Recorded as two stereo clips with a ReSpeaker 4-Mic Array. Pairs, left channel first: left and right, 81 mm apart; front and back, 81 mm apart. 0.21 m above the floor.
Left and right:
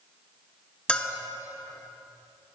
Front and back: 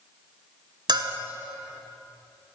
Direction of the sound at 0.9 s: 165° left.